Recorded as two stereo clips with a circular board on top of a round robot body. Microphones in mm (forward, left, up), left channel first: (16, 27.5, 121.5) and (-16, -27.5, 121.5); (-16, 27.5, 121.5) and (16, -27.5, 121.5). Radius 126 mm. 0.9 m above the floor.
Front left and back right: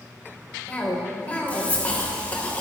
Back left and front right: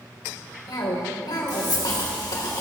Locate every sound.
0.7 s a cough: 125° left, 3 m